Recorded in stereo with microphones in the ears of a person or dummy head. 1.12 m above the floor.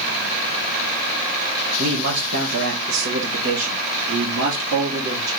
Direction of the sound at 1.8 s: 50° right (ahead or behind).